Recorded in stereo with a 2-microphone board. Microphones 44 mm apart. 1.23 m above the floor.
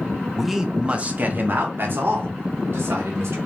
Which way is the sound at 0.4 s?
5° left (ahead or behind).